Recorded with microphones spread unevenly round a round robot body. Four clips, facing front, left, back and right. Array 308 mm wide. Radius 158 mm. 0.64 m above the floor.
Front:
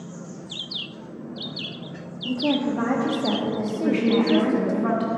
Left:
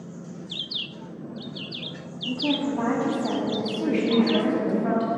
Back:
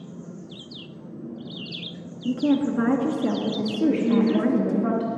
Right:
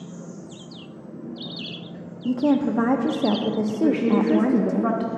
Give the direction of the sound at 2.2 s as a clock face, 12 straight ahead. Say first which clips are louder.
Right 6 dB, back 2 dB; 4 o'clock.